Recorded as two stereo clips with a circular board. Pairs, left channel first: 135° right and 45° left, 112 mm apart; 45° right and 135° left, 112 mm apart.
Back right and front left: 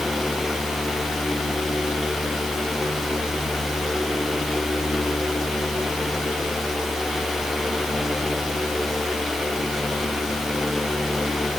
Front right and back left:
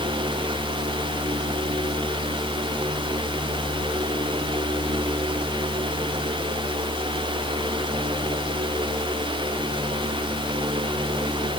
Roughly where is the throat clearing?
No throat clearing in this recording.